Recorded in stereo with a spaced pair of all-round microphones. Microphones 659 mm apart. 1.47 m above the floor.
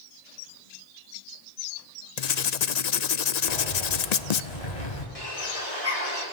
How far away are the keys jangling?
About 6.5 m.